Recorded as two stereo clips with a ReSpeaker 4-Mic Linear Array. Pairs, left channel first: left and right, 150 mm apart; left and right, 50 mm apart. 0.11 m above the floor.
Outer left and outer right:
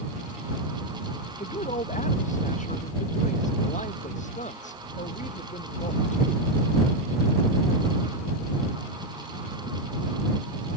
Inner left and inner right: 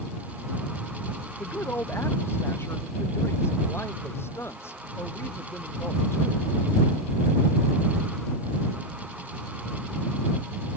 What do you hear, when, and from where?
1.4 s a woman speaking: 55° left (ahead or behind)